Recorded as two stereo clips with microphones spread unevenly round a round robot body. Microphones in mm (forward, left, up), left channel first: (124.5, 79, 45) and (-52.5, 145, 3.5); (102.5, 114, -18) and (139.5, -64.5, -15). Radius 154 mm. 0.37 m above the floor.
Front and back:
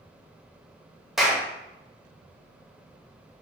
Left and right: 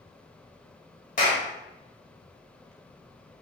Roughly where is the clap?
Left.